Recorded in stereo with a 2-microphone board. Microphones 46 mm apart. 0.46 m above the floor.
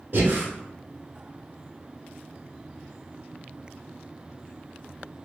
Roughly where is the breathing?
Right.